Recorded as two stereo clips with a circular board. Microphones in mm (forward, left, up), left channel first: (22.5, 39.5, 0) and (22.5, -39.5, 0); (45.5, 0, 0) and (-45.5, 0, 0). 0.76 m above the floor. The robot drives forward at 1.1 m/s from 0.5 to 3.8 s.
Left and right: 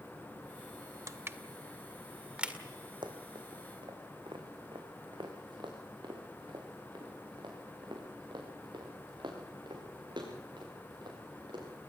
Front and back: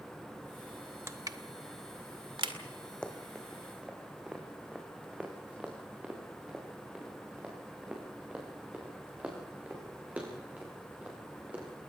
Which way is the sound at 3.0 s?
80° right.